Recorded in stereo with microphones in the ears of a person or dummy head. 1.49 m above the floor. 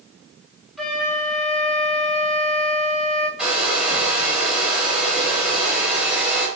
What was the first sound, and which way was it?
A flute, centre (ahead or behind).